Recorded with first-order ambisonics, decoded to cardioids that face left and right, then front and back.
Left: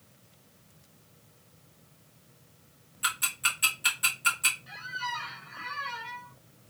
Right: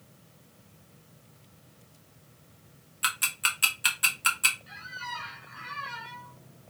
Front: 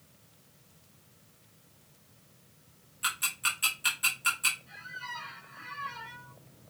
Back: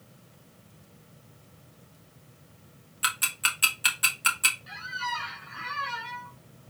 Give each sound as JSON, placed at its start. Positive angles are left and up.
{"t": 3.0, "sound": "ticking", "azimuth_deg": -145, "distance_m": 0.9}
{"t": 4.7, "sound": "a squeak", "azimuth_deg": 175, "distance_m": 0.5}